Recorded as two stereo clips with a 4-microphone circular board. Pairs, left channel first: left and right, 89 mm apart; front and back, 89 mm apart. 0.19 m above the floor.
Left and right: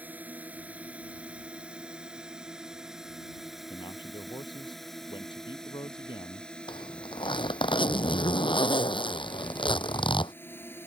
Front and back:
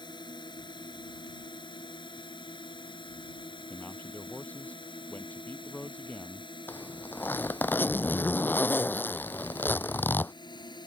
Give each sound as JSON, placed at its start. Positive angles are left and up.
{"t": 0.0, "sound": "a drone", "azimuth_deg": -20}
{"t": 3.7, "sound": "a man speaking", "azimuth_deg": 70}
{"t": 6.7, "sound": "a zipper", "azimuth_deg": 70}